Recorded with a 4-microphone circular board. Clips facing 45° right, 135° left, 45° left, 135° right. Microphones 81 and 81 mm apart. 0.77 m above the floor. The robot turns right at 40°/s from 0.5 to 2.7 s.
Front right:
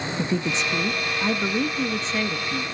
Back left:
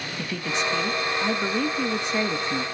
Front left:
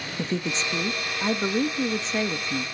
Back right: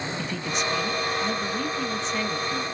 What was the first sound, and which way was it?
A woman speaking, 5° left.